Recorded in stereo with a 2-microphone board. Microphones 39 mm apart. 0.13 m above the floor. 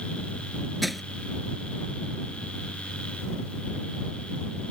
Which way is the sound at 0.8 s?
Centre (ahead or behind).